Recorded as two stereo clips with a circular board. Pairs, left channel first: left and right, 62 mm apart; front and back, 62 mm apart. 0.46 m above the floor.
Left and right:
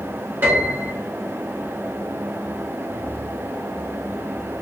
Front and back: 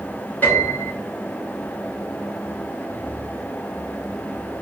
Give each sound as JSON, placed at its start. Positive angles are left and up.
{"t": 0.4, "sound": "a piano", "azimuth_deg": -55, "distance_m": 1.9}